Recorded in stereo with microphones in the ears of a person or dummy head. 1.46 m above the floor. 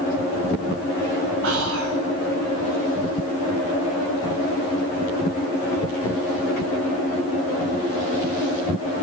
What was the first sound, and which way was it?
Whispering, 85° right.